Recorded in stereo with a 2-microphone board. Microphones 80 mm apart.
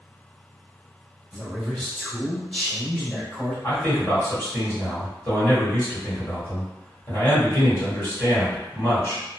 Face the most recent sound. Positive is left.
turn(degrees=25)  # may be behind; listen again after turning